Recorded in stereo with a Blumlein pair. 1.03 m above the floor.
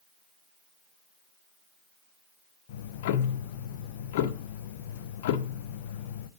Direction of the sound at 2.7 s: 50° left.